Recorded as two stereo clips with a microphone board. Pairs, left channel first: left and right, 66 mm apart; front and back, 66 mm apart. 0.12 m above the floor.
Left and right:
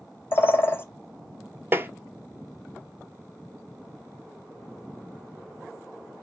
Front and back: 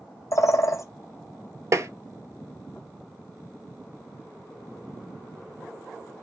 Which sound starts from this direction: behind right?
Tapping, at 1.7 s.